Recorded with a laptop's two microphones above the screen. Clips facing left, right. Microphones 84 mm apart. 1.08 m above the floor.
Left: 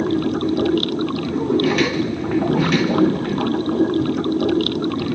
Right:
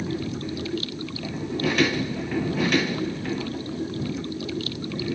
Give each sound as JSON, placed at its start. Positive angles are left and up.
{"t": 0.0, "sound": "running water", "side_deg": 60}